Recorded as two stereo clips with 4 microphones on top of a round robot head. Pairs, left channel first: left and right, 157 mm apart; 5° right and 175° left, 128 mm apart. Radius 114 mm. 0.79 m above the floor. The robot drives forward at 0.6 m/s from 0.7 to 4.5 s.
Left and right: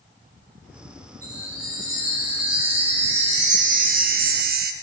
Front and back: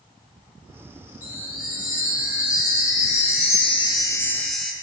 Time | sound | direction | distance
1.2 | a chime | 20° right | 2 m